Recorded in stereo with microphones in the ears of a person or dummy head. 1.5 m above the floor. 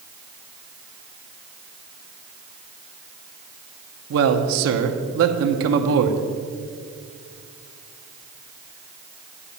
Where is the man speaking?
70° right (ahead or behind), 0.9 m.